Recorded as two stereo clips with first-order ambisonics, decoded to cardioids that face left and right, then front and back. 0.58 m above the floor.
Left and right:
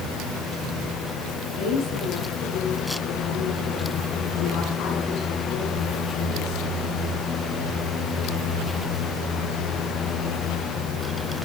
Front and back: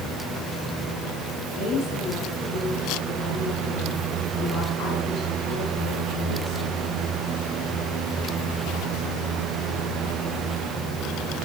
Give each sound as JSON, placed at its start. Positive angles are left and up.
{"t": 1.6, "sound": "a woman speaking", "azimuth_deg": 50, "distance_m": 6.0}